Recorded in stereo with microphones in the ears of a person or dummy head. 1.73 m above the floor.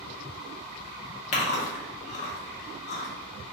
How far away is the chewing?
About 0.7 m.